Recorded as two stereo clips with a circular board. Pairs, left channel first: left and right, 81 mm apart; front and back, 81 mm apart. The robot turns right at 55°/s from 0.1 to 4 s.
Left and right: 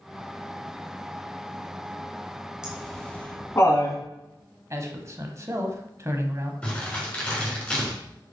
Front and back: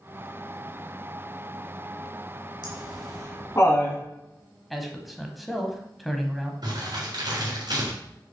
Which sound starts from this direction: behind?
Crumpling, at 6.6 s.